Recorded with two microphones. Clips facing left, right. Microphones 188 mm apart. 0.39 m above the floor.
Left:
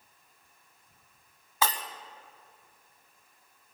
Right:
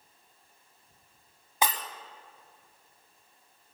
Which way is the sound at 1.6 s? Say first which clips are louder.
Even; 20° right (ahead or behind).